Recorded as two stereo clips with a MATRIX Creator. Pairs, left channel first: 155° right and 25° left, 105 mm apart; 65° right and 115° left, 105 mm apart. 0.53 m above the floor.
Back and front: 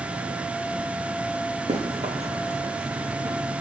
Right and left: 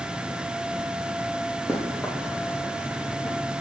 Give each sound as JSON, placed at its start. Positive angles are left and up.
{"t": 1.7, "sound": "running footsteps", "azimuth_deg": 20, "distance_m": 2.5}